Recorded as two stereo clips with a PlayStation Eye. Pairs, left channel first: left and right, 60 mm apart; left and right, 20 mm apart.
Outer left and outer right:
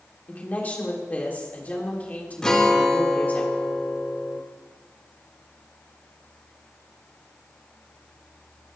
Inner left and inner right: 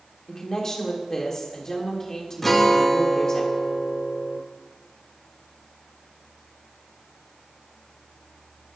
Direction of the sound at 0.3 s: 30° left (ahead or behind).